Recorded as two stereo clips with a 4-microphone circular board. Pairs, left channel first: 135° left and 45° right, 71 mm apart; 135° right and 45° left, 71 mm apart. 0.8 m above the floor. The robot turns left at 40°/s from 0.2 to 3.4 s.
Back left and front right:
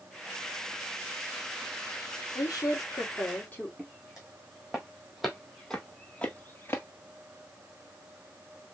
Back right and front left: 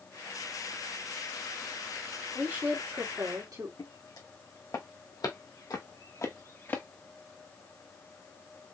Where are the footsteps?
125° right, 3 m; by 6.8 s 175° left, 1.1 m.